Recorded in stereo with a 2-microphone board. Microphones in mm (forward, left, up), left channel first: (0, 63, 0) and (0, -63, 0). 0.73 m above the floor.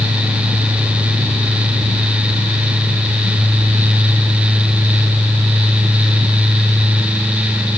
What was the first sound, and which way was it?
Only background noise.